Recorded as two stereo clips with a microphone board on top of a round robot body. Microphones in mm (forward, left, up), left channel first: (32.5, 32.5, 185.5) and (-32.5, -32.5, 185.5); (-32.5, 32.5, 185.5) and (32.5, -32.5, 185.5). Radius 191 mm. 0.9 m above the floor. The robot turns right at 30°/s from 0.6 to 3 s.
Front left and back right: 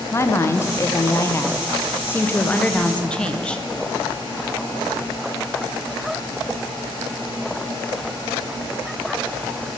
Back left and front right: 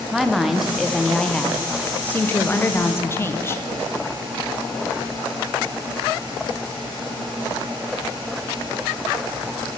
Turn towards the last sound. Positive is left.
turn(degrees=110)